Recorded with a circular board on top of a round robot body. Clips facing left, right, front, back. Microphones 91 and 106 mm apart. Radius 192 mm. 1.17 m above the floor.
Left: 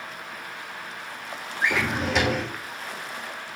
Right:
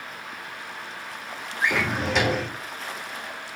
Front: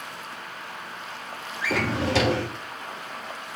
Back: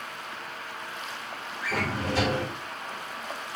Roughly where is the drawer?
Ahead.